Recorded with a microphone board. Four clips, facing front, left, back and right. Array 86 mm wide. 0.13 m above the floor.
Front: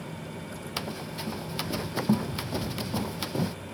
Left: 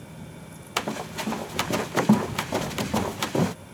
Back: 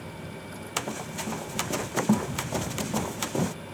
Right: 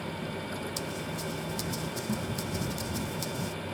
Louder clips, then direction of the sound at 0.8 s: Left 5 dB, back 4 dB; 105° left.